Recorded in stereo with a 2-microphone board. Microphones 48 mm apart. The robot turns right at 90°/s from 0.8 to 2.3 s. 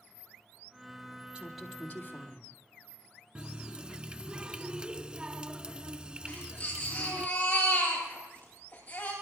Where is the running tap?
20° right (ahead or behind), 0.7 m.